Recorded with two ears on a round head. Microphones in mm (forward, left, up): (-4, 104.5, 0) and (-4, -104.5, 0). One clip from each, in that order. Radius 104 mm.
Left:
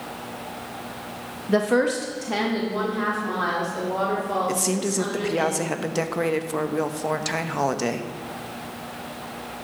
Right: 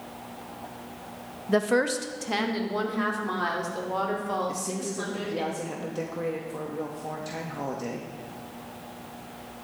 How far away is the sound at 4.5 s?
About 0.7 m.